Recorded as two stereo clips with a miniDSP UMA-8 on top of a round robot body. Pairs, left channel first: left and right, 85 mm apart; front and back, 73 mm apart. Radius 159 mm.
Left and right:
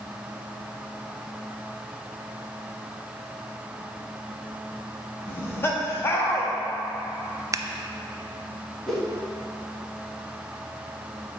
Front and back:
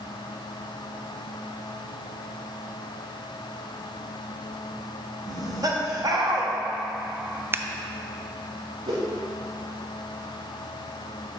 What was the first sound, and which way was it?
Laughter, 150° left.